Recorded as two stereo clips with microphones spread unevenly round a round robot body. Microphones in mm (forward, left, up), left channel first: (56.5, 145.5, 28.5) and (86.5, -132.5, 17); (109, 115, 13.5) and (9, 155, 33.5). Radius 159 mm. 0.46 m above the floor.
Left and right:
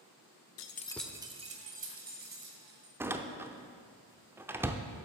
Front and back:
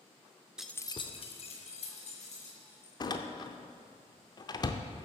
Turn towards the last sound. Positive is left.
turn(degrees=-5)